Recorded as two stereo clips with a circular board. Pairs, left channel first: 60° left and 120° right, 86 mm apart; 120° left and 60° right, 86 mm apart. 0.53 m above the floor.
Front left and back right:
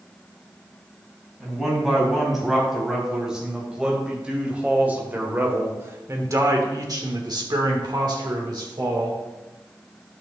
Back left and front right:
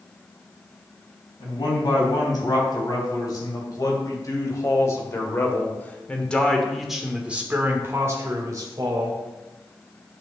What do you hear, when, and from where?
1.4 s a man speaking: 150° left, 3.5 m; by 9.2 s 85° right, 1.8 m